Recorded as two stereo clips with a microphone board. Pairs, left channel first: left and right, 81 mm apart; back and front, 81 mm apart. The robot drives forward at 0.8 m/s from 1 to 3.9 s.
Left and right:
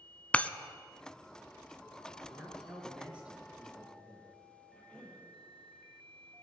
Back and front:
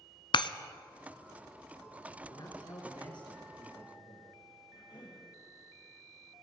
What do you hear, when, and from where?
0.3 s breaking glass: 165° left, 0.6 m
2.3 s a man speaking: 160° right, 3.5 m; by 4.3 s 165° right, 5 m
4.7 s a cough: 170° left, 5.5 m